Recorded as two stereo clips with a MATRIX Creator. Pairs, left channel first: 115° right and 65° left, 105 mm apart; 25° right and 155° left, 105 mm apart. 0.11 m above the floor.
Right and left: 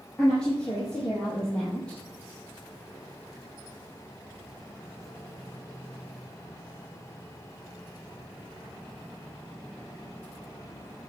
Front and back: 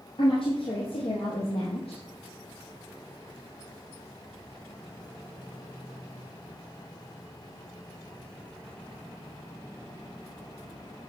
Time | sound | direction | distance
0.2 | a woman speaking | 35° right | 3 m